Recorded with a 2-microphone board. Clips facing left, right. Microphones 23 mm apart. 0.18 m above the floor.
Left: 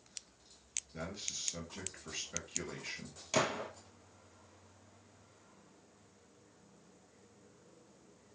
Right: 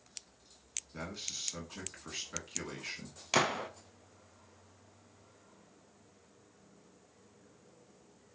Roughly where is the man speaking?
Right.